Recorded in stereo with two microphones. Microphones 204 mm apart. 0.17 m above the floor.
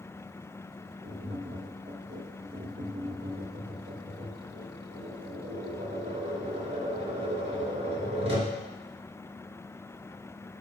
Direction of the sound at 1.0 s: 65° right (ahead or behind).